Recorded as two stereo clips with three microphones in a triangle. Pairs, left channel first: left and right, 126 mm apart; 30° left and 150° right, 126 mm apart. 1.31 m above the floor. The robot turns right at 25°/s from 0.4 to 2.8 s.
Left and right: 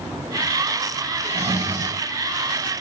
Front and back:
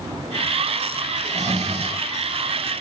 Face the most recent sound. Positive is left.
turn(degrees=-90)